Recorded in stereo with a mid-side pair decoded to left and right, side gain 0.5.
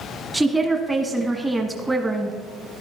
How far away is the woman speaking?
About 1.2 m.